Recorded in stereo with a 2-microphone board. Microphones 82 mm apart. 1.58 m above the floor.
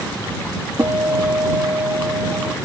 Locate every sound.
0.8 s a guitar: 45° right (ahead or behind)